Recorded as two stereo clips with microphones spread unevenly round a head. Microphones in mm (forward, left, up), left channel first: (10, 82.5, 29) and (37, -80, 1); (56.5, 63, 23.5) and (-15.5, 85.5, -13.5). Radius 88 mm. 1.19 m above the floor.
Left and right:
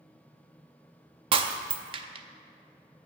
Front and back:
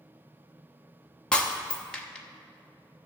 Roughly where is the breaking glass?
Ahead right.